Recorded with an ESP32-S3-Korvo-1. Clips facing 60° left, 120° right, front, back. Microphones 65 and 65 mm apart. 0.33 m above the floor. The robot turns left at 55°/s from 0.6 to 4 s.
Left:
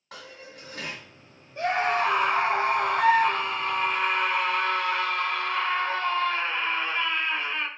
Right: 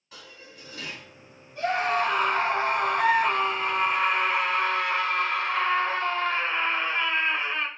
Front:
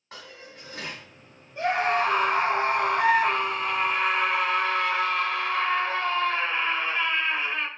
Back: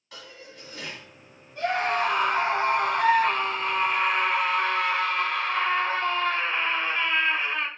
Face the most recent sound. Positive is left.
turn(degrees=-85)